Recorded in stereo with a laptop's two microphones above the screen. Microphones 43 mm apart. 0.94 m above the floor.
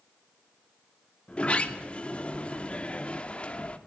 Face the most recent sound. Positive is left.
turn(degrees=25)  # may be behind; listen again after turning